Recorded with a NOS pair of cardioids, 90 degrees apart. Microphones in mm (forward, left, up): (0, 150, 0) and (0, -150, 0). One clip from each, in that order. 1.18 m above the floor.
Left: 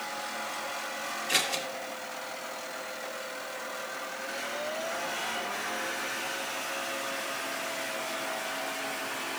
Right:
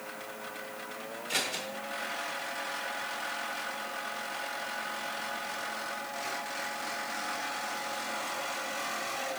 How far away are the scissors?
About 1.8 m.